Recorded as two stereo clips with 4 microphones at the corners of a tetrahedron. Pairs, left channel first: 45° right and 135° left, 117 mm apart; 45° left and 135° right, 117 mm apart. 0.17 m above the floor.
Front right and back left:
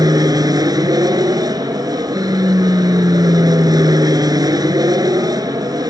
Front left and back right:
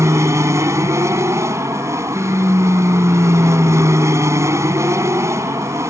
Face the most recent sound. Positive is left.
turn(degrees=170)